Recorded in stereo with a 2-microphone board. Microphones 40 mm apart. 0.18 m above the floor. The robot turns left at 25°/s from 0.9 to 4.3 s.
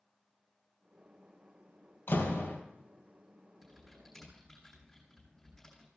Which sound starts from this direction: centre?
Typing on a keyboard, at 3.6 s.